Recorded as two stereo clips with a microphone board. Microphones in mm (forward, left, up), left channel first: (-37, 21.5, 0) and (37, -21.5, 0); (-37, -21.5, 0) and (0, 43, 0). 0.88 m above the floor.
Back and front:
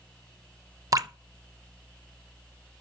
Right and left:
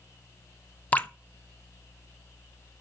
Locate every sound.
0.9 s dripping: 60° right, 0.7 m